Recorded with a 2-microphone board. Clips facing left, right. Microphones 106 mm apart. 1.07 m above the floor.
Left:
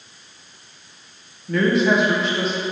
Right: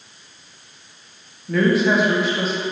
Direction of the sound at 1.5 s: Centre (ahead or behind).